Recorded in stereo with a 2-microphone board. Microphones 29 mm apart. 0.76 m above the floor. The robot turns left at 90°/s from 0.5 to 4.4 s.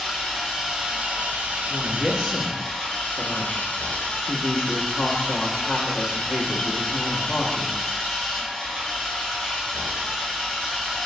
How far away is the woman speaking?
About 1.0 m.